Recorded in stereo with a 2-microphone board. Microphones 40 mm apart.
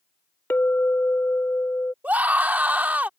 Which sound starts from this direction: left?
A clink, at 0.5 s.